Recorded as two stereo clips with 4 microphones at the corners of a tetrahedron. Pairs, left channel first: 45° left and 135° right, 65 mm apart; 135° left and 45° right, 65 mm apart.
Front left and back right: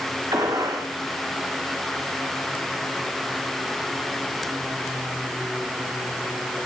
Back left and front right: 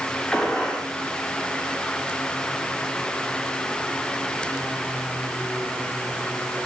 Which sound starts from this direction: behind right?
A gunshot, at 0.3 s.